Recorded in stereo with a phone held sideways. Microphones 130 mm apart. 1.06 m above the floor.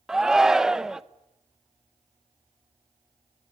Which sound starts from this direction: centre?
A shout, at 0.1 s.